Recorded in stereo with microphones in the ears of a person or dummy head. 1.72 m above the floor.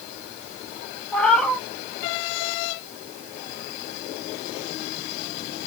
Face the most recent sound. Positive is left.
turn(degrees=10)  # may be behind; listen again after turning